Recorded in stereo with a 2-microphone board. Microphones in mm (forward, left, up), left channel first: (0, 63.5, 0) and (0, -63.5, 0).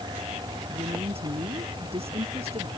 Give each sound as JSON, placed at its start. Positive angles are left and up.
{"t": 0.7, "sound": "a woman speaking", "side_deg": -50}